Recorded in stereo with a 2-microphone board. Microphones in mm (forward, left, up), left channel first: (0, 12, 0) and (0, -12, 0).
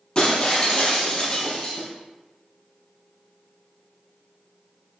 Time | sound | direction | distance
0.1 | breaking glass | 30° left (ahead or behind) | 2.5 m